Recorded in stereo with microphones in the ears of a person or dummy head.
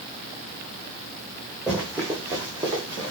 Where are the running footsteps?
5° right (ahead or behind), 3.5 m; by 3.1 s 25° right (ahead or behind), 4.5 m.